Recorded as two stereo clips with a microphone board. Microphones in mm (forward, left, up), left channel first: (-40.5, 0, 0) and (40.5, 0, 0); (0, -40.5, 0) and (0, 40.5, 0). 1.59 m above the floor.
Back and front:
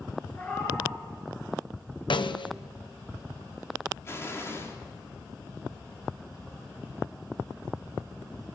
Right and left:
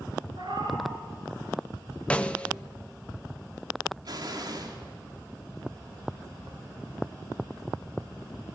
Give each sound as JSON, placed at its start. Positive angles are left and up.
{"t": 0.3, "sound": "a cat meowing", "azimuth_deg": 115, "distance_m": 8.0}
{"t": 2.1, "sound": "a snare drum", "azimuth_deg": -165, "distance_m": 0.9}
{"t": 4.0, "sound": "an explosion", "azimuth_deg": 120, "distance_m": 3.5}